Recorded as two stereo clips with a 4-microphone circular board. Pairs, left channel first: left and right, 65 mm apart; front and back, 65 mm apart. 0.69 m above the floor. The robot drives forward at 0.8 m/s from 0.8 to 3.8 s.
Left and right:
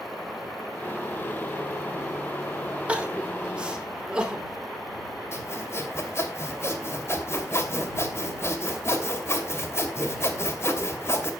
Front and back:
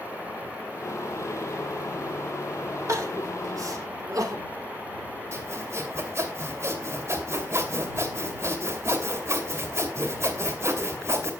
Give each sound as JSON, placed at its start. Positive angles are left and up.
{"t": 2.9, "sound": "crying", "azimuth_deg": -160, "distance_m": 1.7}
{"t": 5.3, "sound": "sawing", "azimuth_deg": 135, "distance_m": 2.5}